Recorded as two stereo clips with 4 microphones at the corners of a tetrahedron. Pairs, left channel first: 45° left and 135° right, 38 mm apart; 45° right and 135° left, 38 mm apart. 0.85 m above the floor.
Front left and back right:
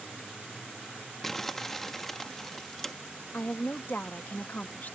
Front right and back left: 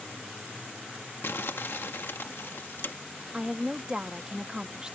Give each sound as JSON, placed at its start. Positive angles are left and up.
{"t": 1.2, "sound": "crumpling", "azimuth_deg": -35}
{"t": 3.3, "sound": "a woman speaking", "azimuth_deg": 70}